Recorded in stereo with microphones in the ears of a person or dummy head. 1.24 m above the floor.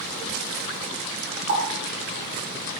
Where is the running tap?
45° right (ahead or behind), 1.7 m.